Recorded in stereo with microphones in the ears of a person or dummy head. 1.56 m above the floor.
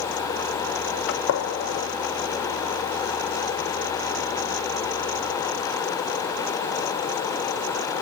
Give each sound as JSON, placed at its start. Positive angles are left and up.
{"t": 1.1, "sound": "a gunshot", "side_deg": 70, "distance_m": 0.7}